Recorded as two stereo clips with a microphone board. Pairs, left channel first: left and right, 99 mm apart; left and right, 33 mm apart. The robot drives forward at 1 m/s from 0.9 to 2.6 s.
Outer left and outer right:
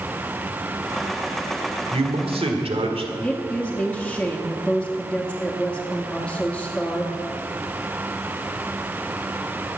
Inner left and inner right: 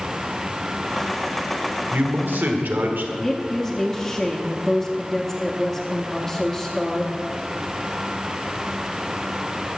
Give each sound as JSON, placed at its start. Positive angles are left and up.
{"t": 1.9, "sound": "a man speaking", "side_deg": -70, "distance_m": 1.7}
{"t": 3.2, "sound": "a woman speaking", "side_deg": 10, "distance_m": 0.9}